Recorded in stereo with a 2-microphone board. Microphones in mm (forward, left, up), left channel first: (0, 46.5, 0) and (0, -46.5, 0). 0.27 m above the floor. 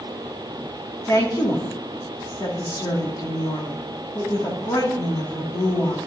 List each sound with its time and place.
1.1 s a woman speaking: 40° left (ahead or behind), 2.5 m